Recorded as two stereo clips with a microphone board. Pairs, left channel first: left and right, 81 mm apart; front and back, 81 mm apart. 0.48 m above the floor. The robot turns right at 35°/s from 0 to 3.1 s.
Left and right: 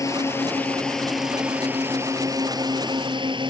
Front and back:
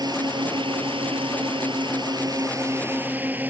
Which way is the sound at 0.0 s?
140° left.